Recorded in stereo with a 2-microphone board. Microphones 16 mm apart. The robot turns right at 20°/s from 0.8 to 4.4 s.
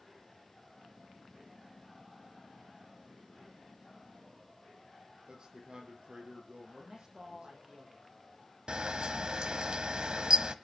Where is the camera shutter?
55° right (ahead or behind), 1.0 m.